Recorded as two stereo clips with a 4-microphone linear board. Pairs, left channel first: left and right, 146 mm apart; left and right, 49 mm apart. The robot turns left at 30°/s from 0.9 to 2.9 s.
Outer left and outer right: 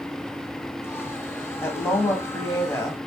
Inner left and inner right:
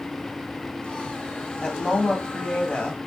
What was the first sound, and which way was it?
A woman speaking, 20° left (ahead or behind).